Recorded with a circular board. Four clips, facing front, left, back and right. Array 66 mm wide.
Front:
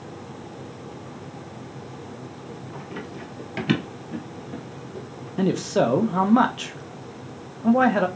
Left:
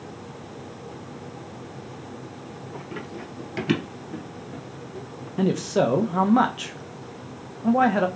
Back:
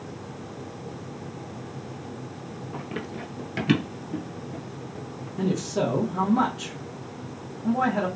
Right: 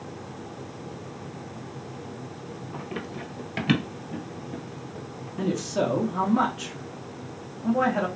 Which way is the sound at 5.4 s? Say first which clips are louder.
Left 4 dB, front 5 dB; 35° left.